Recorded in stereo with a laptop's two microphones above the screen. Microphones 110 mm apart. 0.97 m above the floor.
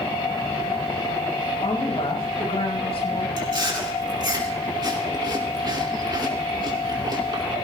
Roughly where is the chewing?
Right.